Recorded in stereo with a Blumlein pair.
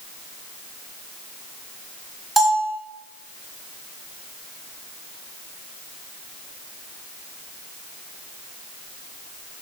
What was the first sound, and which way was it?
A bell, straight ahead.